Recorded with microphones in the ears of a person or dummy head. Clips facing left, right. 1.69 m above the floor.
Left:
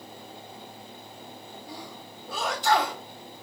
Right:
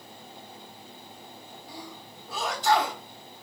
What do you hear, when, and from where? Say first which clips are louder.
1.7 s a sneeze: even; 55° left (ahead or behind), 1.2 m